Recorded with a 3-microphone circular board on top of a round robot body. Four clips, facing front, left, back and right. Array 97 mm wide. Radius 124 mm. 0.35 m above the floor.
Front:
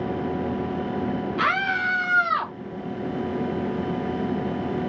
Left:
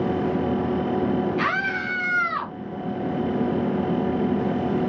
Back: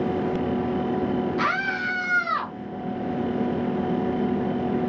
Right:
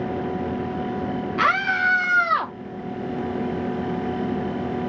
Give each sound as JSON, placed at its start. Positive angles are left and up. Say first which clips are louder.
{"t": 1.4, "sound": "a scream", "louder": "right 4 dB, front 2 dB", "azimuth_deg": -90, "distance_m": 2.0}